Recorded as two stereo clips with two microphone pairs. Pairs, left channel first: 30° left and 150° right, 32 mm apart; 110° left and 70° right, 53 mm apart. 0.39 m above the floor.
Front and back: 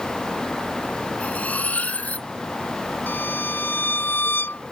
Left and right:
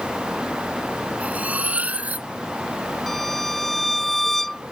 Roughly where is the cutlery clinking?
Ahead.